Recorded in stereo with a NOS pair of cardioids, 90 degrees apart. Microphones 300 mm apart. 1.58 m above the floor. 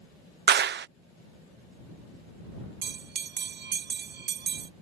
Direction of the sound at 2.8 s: 35° right.